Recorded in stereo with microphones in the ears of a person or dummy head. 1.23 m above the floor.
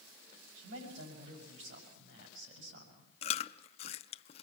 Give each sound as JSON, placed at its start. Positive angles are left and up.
{"t": 0.6, "sound": "a man speaking", "side_deg": -80, "distance_m": 6.0}
{"t": 3.2, "sound": "chewing", "side_deg": 35, "distance_m": 0.5}